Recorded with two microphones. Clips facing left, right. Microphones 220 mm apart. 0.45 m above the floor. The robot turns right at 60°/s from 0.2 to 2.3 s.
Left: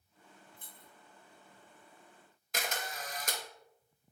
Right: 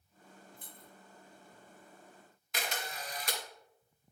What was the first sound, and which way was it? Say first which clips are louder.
Keys jangling: right 3 dB; 50° left (ahead or behind).